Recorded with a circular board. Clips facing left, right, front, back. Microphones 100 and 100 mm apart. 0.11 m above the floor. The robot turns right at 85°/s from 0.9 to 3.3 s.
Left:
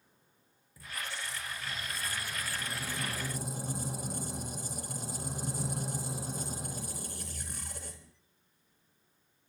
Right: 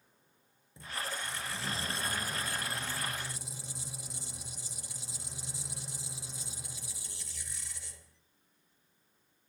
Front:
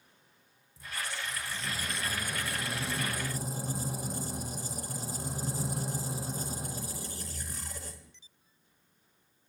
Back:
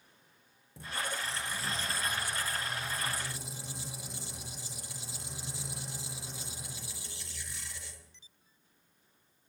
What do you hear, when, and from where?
0.8 s a squeak: 155° right, 4 m; by 8.1 s 50° left, 4 m